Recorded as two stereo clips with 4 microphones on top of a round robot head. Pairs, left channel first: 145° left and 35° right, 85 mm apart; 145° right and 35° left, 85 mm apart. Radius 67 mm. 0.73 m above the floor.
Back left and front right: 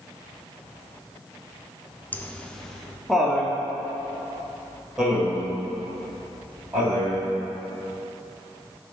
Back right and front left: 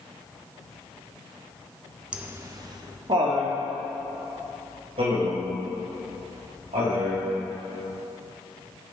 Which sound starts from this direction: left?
Laughter, at 2.1 s.